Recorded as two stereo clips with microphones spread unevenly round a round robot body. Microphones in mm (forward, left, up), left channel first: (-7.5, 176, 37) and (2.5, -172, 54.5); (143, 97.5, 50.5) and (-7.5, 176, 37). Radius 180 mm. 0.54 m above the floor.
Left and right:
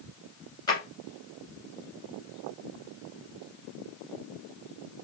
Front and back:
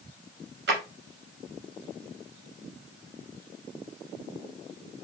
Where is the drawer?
170° left, 1.7 m.